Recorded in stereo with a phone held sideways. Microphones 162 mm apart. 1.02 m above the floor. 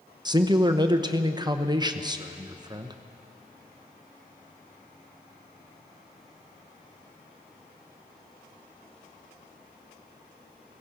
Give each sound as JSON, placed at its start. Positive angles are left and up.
{"t": 0.2, "sound": "a man speaking", "side_deg": -25, "distance_m": 0.7}